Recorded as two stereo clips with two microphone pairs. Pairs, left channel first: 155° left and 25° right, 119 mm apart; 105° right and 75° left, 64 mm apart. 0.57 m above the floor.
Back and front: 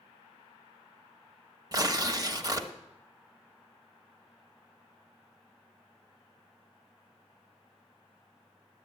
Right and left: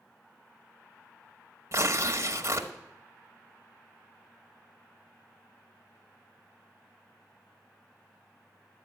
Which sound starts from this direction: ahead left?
Tearing paper, at 1.7 s.